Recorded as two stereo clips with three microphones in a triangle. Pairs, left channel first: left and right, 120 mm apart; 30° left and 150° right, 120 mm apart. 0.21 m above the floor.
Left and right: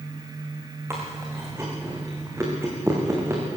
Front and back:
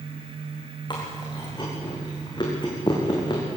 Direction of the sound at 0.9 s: 20° right.